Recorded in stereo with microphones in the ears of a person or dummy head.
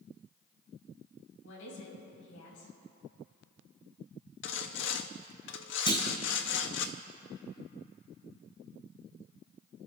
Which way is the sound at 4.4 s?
65° left (ahead or behind).